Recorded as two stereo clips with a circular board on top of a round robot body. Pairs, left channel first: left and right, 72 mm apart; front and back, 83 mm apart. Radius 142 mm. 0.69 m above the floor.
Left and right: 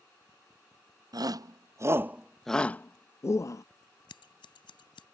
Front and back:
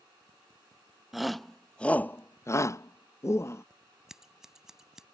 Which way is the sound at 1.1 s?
90° right.